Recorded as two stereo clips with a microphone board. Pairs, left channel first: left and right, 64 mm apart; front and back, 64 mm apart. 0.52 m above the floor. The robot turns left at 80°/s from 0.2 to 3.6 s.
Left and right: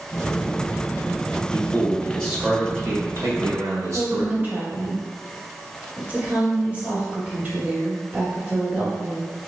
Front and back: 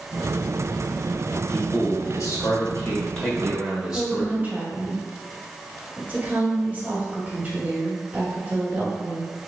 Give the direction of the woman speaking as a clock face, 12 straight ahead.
5 o'clock.